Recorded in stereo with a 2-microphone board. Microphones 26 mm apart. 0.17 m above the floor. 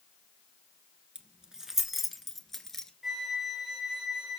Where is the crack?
No crack in this recording.